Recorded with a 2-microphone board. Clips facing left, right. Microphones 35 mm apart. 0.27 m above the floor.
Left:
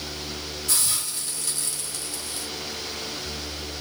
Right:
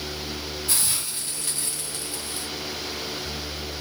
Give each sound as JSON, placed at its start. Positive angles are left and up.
{"t": 0.7, "sound": "a hiss", "side_deg": -25, "distance_m": 1.6}